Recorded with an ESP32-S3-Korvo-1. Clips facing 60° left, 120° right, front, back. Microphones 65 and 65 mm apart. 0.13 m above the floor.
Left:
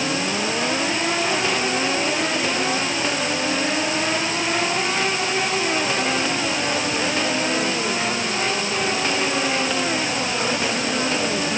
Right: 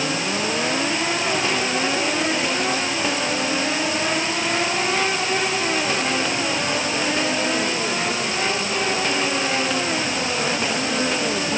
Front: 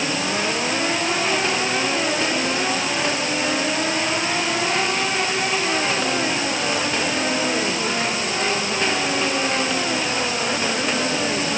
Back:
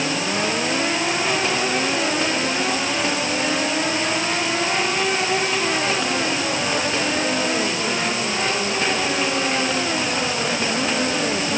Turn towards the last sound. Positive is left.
No sound to turn to.